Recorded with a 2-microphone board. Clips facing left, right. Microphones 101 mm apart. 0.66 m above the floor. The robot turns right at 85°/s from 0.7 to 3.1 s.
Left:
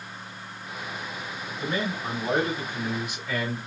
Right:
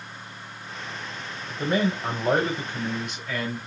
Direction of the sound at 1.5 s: 130° right.